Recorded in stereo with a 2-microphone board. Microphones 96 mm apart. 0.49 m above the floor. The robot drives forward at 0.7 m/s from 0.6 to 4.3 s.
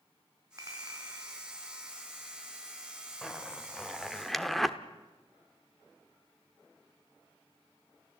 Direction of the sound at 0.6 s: 35° right (ahead or behind).